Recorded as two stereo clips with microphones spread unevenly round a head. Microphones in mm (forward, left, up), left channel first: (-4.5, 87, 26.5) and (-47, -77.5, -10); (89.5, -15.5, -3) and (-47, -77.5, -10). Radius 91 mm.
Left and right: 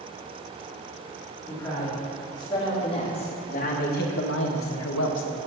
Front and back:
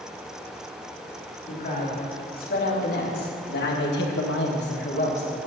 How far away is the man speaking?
About 3.5 m.